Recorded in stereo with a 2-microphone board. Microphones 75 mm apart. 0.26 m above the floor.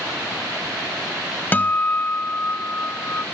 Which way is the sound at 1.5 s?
25° left (ahead or behind).